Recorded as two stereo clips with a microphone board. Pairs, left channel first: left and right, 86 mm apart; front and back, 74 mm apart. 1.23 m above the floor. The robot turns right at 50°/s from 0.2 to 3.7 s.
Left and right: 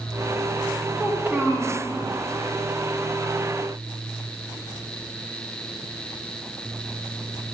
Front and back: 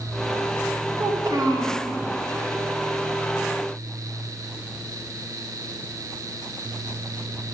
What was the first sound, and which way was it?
A child speaking, 175° right.